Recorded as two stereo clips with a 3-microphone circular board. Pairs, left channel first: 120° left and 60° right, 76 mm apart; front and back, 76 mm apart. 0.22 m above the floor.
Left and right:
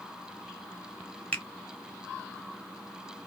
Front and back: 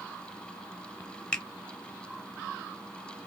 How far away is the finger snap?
About 1.0 m.